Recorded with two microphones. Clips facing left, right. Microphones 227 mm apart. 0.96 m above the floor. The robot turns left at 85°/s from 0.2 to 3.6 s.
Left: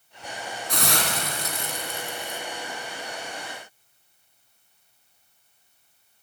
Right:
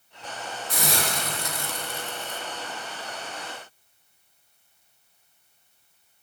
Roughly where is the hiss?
Left.